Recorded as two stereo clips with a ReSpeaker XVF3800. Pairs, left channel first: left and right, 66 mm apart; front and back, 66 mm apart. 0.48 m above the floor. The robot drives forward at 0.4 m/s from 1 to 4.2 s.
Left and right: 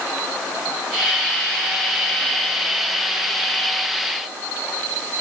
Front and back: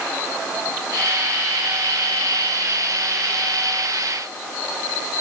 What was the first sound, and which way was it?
Only background noise.